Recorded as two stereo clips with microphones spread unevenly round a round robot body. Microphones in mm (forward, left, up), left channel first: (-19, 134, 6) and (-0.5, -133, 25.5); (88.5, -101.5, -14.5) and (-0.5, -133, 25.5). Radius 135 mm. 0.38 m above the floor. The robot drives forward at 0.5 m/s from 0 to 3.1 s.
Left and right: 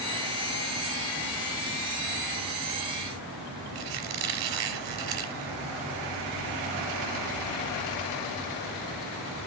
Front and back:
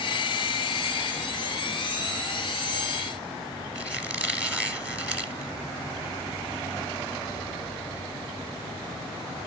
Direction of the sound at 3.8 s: 80° right.